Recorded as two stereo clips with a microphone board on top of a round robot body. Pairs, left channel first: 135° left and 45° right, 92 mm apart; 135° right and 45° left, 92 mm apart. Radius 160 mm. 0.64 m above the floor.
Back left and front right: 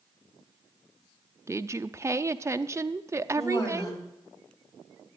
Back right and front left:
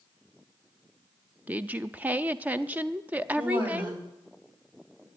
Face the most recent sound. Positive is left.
turn(degrees=80)